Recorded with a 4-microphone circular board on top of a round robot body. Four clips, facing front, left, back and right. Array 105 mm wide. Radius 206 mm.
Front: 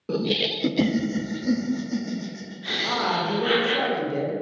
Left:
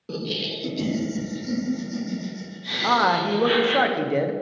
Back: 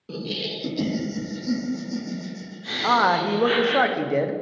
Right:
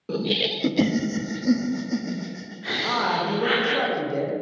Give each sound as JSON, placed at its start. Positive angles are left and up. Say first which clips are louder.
{"t": 0.1, "sound": "laughter", "louder": "right 4 dB, front 6 dB", "azimuth_deg": -20, "distance_m": 0.7}
{"t": 2.8, "sound": "a man speaking", "louder": "left 5 dB, back 6 dB", "azimuth_deg": 155, "distance_m": 1.1}